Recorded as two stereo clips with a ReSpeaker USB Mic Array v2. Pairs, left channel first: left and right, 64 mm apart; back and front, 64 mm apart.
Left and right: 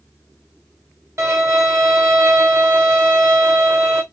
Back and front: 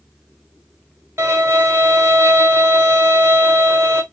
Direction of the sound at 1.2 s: 50° right.